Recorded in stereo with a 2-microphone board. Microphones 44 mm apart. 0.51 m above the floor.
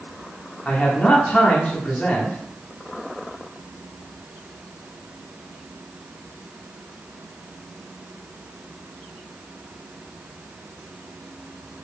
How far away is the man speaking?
About 1.1 m.